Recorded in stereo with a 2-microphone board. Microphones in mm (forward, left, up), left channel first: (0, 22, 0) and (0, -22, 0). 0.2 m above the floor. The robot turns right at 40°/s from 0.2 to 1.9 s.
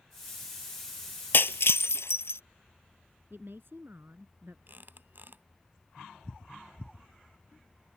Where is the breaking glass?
55° left (ahead or behind); by 2.4 s 75° left (ahead or behind).